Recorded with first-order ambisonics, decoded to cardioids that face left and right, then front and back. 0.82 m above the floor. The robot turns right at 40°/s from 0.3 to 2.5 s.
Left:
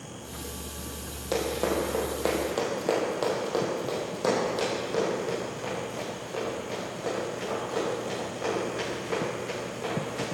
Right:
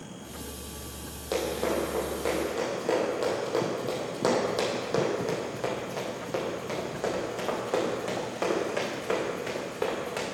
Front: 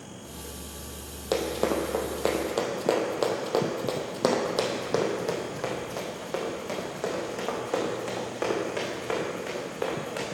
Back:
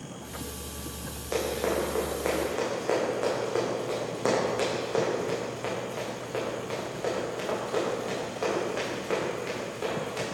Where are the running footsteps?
Straight ahead, 1.7 m; by 10.2 s 45° right, 4.5 m.